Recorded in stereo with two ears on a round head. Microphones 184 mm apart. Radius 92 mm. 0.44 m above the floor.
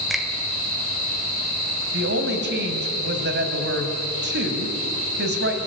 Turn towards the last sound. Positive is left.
turn(degrees=-55)  # may be behind; listen again after turning